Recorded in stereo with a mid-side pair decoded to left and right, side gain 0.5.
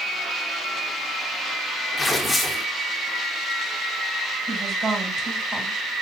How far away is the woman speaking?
About 5.5 m.